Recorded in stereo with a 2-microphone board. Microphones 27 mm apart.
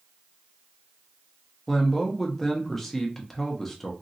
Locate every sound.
1.7 s a man speaking: 10° left (ahead or behind), 0.8 m